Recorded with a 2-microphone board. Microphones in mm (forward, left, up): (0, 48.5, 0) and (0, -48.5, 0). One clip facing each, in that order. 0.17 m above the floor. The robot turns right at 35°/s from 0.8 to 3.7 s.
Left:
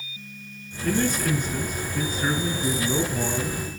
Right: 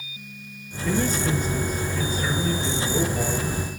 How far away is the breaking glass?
No breaking glass in this recording.